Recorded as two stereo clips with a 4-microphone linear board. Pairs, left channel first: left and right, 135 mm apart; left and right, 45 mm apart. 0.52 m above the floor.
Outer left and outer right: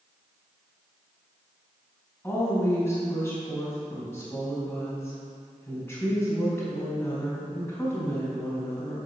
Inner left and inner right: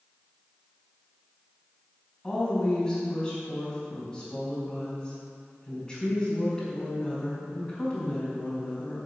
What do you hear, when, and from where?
2.2 s a woman speaking: 15° left (ahead or behind), 4 m